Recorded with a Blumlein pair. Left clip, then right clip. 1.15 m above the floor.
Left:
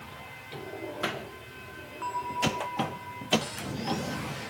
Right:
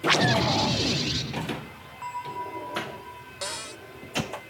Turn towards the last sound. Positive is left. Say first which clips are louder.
# right 2 dB
turn(degrees=-25)